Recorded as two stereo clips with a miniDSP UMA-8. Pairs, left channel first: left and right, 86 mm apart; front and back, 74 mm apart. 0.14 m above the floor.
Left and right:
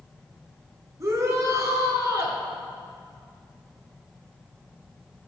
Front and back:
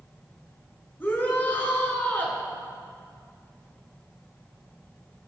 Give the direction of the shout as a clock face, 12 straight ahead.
2 o'clock.